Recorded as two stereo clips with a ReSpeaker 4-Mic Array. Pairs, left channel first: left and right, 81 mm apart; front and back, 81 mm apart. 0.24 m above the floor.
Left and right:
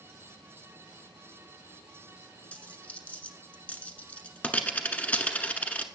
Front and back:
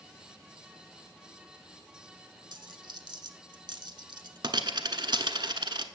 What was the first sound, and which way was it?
A dropped coin, 160° left.